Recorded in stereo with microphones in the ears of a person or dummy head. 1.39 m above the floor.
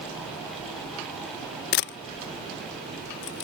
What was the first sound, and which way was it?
A camera shutter, 50° left (ahead or behind).